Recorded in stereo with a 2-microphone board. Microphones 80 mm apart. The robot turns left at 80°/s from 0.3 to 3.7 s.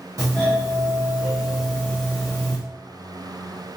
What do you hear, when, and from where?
0.2 s a doorbell: 75° right, 1.4 m; by 2.6 s 100° left, 1.4 m